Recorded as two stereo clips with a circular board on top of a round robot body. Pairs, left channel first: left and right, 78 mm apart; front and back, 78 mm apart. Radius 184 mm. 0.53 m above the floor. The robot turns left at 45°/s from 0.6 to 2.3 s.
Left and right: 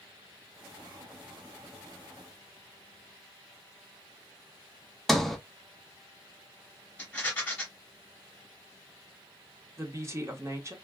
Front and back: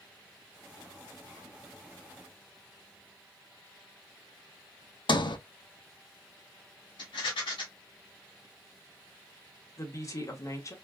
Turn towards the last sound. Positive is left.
turn(degrees=-40)